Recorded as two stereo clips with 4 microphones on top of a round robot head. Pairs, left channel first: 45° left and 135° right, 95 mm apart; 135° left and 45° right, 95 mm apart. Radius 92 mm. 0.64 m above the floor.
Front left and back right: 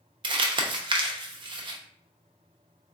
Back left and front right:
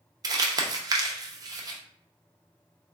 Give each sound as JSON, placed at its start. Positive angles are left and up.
{"t": 0.2, "sound": "crumpling", "azimuth_deg": -95, "distance_m": 0.6}